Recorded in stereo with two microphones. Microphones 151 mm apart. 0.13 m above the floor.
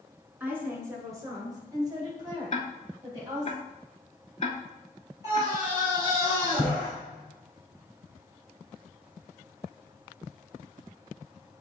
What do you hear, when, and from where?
0.4 s a woman speaking: 10° right (ahead or behind), 1.2 m; by 3.5 s 25° right (ahead or behind), 3 m
2.5 s ticking: 50° left (ahead or behind), 0.6 m
5.2 s a scream: 25° right (ahead or behind), 1.9 m